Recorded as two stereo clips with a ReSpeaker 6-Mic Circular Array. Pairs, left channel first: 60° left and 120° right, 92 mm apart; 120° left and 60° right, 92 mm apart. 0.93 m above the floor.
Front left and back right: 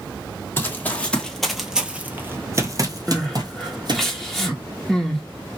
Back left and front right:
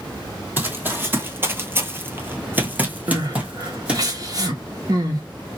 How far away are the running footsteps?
About 1.3 m.